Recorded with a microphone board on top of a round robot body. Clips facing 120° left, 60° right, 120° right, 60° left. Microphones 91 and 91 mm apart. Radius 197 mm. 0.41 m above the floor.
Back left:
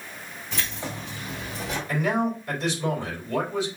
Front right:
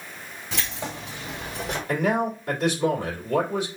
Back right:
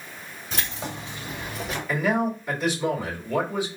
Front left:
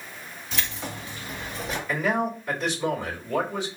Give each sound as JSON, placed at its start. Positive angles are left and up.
{"t": 0.5, "sound": "keys jangling", "azimuth_deg": -70, "distance_m": 2.5}
{"t": 1.9, "sound": "a man speaking", "azimuth_deg": -35, "distance_m": 3.0}